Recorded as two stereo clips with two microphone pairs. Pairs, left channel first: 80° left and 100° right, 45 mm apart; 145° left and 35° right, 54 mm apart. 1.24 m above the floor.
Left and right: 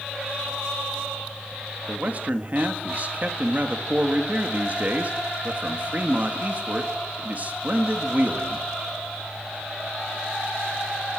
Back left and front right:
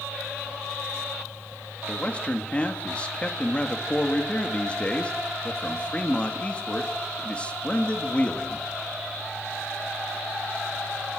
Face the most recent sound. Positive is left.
turn(degrees=-150)